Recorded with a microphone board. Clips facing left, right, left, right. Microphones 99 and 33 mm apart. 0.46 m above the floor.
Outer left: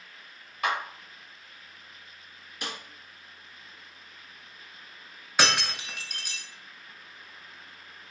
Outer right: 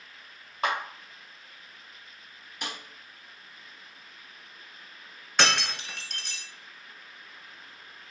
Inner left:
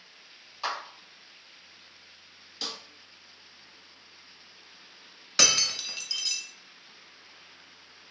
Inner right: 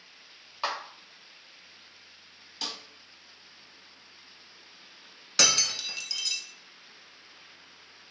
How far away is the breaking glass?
About 0.7 m.